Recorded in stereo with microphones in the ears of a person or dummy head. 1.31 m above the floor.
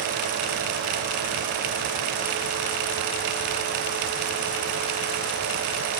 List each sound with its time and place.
Only background noise.